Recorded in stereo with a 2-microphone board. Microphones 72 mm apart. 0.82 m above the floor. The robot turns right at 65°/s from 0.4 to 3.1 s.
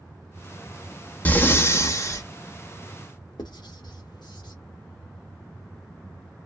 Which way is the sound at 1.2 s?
35° left.